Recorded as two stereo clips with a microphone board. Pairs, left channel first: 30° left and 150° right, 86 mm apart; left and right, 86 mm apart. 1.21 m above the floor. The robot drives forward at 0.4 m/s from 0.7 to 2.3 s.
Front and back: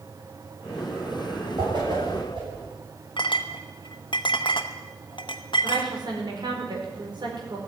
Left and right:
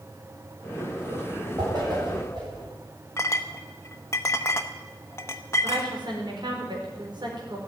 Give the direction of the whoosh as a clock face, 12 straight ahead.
4 o'clock.